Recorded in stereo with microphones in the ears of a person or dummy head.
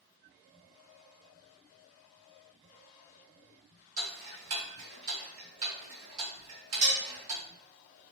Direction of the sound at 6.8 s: 65° right (ahead or behind).